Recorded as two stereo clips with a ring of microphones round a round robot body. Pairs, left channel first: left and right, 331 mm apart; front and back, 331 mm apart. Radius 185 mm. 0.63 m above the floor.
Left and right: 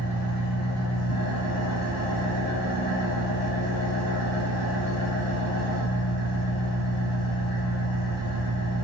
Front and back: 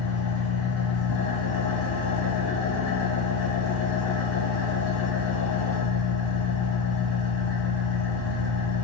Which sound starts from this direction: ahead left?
An engine running, at 0.0 s.